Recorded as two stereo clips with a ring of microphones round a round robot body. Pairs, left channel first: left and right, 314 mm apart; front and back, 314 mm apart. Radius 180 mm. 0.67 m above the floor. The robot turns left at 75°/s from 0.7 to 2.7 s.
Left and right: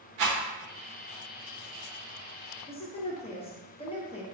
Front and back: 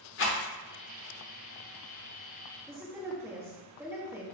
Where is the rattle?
50° right, 1.2 m.